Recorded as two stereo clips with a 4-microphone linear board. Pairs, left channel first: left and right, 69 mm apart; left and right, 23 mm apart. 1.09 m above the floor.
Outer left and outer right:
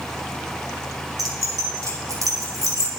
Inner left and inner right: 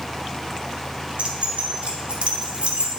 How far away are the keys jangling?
About 2.5 m.